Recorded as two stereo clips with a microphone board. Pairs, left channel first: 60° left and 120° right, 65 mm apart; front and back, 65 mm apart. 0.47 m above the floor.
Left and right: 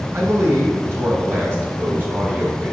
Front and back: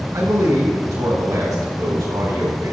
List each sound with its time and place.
0.1 s a man speaking: 165° right, 4 m; by 2.7 s straight behind, 3 m